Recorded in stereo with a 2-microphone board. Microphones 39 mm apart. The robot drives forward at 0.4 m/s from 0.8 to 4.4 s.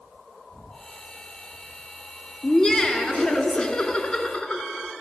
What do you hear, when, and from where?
2.4 s laughter: 20° left (ahead or behind), 1.8 m; by 4.9 s 25° left (ahead or behind), 1.6 m